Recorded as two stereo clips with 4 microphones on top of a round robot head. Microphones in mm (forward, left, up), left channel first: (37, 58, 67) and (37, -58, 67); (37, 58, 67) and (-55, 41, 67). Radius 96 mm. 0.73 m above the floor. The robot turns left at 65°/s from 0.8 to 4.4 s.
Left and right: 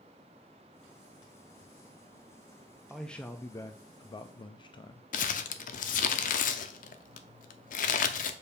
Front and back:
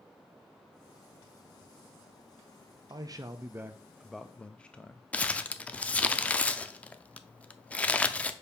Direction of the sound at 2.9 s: Straight behind.